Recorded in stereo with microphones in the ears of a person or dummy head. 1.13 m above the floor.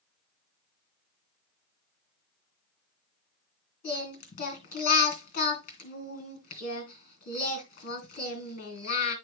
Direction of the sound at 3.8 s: 50° left (ahead or behind).